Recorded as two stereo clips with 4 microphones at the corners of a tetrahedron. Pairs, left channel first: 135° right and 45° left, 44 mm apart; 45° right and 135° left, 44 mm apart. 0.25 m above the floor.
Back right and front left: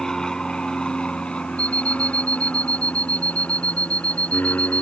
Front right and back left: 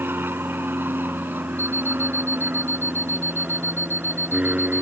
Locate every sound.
0.0 s an aircraft: 155° left; by 4.8 s 170° right
1.6 s an alarm clock: 165° left